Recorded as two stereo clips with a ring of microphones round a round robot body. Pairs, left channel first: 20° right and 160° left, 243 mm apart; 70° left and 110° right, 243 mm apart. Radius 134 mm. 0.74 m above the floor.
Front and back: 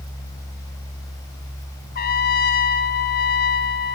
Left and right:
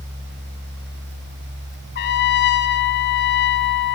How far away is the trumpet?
About 0.6 m.